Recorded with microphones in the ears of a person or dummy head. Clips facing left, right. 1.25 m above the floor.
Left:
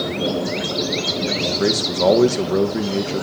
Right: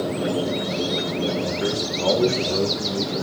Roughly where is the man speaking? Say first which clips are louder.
Left 10 dB; left.